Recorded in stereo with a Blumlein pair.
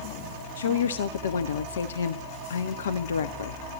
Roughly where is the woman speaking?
Ahead left.